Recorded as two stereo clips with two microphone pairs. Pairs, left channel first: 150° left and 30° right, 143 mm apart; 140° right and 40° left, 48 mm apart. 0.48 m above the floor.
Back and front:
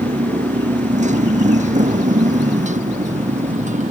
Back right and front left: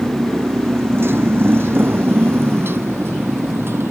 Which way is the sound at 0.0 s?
Straight ahead.